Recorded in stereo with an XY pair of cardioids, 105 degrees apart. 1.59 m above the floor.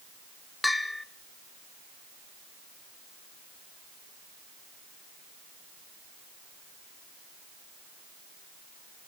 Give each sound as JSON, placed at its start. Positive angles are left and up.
{"t": 0.6, "sound": "a bell", "azimuth_deg": 10, "distance_m": 1.4}